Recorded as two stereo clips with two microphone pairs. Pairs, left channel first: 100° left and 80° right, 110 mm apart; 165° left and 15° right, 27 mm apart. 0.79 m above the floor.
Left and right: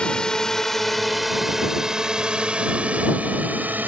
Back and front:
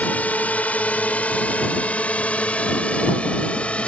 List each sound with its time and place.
0.0 s a drone: straight behind; by 3.9 s 150° right